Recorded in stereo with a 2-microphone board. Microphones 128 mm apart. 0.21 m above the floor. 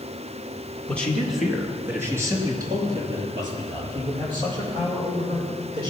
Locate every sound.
0.9 s a man speaking: 15° left (ahead or behind), 1.9 m; by 5.9 s 40° right (ahead or behind), 8.5 m